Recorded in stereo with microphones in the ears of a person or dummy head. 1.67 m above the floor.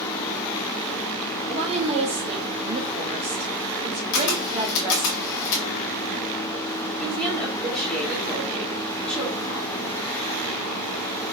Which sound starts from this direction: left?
A camera shutter, at 4.1 s.